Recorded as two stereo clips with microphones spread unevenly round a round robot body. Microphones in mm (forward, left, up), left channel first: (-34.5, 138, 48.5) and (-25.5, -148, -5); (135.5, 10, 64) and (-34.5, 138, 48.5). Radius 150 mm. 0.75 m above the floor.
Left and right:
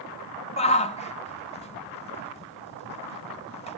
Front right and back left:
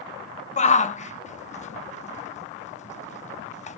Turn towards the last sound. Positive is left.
turn(degrees=20)